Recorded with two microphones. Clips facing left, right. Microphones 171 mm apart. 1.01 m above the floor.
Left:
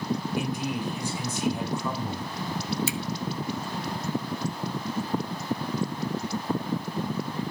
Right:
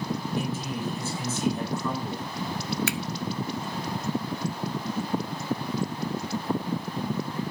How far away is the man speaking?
About 4.5 m.